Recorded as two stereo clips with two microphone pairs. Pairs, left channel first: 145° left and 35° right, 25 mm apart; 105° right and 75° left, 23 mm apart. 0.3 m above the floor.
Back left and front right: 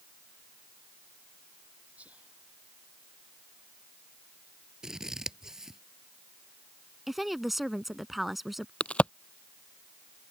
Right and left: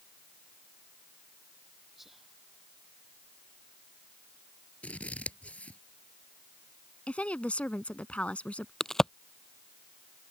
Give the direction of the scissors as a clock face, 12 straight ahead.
3 o'clock.